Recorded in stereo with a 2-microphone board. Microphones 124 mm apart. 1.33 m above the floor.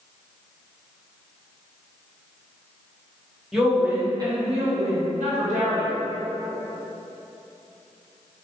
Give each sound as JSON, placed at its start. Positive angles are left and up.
{"t": 3.5, "sound": "a woman speaking", "side_deg": -5, "distance_m": 1.0}